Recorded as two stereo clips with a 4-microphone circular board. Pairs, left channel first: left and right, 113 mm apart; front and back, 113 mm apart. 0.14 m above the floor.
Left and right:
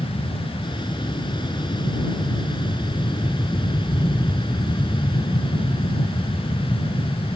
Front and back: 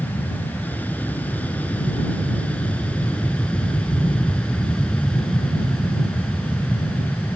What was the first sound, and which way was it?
An aircraft, 70° left.